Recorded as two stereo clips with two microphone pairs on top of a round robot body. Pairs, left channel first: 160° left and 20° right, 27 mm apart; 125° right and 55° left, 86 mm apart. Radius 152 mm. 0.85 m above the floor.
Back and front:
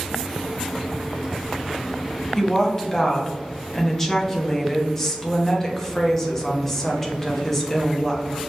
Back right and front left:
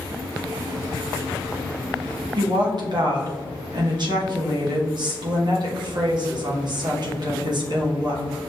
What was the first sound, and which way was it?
A woman speaking, 80° left.